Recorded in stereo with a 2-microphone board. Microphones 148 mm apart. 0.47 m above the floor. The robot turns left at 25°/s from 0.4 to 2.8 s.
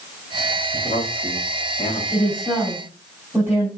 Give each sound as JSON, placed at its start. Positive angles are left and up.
{"t": 0.7, "sound": "a man speaking", "side_deg": 65, "distance_m": 2.0}
{"t": 2.1, "sound": "a woman speaking", "side_deg": 5, "distance_m": 3.5}